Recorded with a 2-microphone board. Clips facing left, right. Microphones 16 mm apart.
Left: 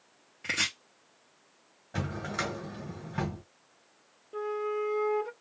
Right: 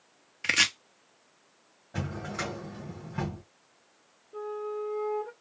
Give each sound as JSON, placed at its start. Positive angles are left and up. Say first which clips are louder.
{"t": 0.4, "sound": "chopping", "louder": "right 5 dB", "side_deg": -55, "distance_m": 0.7}
{"t": 1.9, "sound": "a drawer", "louder": "left 1 dB", "side_deg": 30, "distance_m": 1.7}
{"t": 4.3, "sound": "a flute", "louder": "left 3 dB", "side_deg": 70, "distance_m": 0.5}